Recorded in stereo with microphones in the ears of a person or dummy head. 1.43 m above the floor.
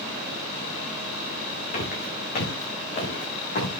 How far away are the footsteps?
About 5 m.